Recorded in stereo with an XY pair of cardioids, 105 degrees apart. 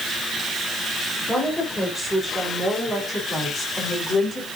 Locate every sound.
1.3 s a woman speaking: 5° left, 3.5 m; by 4.5 s 40° left, 4 m